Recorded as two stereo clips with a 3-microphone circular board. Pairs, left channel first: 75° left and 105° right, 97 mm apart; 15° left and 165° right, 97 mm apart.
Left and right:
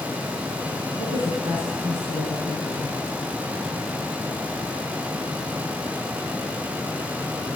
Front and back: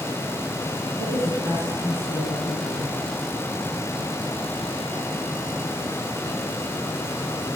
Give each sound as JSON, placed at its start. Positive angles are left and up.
{"t": 1.0, "sound": "a woman speaking", "azimuth_deg": 75, "distance_m": 8.0}